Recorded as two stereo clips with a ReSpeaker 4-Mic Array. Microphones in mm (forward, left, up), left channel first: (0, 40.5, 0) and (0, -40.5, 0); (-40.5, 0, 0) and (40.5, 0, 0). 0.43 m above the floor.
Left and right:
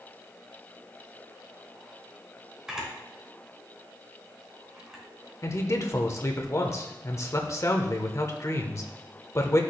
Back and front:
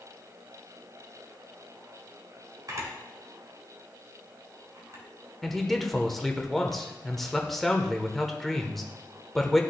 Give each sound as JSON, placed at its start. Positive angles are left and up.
{"t": 2.7, "sound": "a camera shutter", "azimuth_deg": -10, "distance_m": 2.0}
{"t": 5.4, "sound": "a man speaking", "azimuth_deg": 95, "distance_m": 1.0}